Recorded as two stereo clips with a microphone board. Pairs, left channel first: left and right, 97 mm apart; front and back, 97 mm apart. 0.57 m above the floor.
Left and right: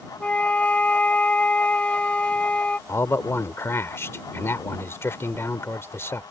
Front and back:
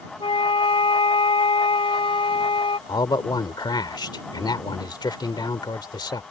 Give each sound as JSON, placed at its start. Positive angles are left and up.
{"t": 0.2, "sound": "a flute", "azimuth_deg": 15}
{"t": 2.9, "sound": "a man speaking", "azimuth_deg": 30}